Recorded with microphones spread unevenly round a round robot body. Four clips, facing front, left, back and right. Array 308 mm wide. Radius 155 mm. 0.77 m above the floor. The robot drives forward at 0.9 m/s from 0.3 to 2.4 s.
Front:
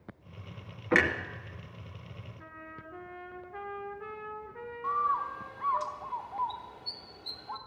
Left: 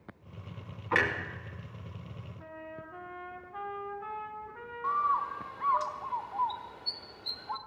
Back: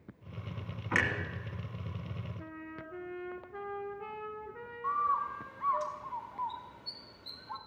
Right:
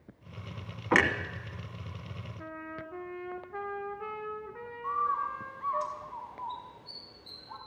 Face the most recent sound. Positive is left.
turn(degrees=85)